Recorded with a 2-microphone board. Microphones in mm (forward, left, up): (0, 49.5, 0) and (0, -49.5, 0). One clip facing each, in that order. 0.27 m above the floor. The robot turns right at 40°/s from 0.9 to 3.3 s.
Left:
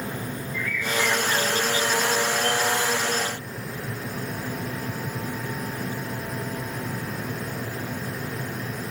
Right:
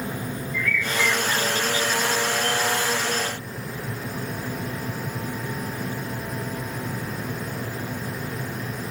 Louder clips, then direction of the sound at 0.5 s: Right 1 dB; 20° left.